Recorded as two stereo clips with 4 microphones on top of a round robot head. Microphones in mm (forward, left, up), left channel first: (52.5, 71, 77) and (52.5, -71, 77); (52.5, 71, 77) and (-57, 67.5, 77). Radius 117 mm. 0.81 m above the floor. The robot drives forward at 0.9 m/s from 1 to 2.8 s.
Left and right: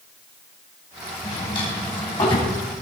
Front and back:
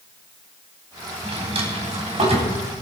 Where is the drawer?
150° left, 3 m; by 2.5 s 155° left, 4 m.